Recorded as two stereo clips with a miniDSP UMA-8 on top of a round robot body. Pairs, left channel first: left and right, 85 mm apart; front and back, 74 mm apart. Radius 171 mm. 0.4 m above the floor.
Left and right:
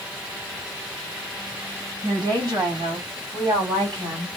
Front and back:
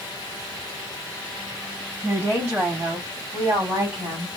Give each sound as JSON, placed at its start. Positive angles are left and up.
{"t": 2.0, "sound": "a woman speaking", "azimuth_deg": -135, "distance_m": 4.0}